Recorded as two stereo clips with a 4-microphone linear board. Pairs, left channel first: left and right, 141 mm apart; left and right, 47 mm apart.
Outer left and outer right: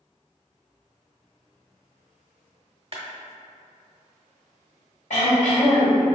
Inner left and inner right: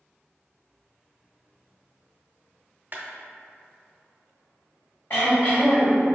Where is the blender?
No blender in this recording.